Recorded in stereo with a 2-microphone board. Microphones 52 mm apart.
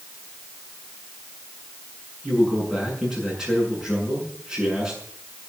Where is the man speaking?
10° right (ahead or behind), 7.5 m.